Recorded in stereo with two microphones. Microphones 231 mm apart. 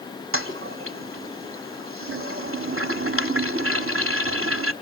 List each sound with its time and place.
0.3 s a toilet flushing: 65° right (ahead or behind), 1.0 m